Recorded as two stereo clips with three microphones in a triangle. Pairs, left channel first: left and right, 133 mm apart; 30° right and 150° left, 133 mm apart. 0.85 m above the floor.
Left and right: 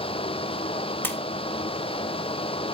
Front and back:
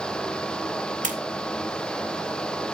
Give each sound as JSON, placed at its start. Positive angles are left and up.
{"t": 1.0, "sound": "a splash", "azimuth_deg": 165, "distance_m": 2.5}